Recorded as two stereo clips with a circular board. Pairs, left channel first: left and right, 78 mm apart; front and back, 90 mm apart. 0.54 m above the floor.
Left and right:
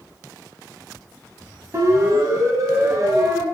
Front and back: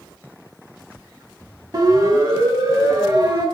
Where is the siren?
140° right, 4 m.